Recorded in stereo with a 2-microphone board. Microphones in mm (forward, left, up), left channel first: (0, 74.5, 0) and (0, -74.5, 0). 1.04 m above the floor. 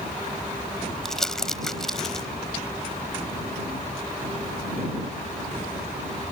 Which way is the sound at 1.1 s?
5° left (ahead or behind).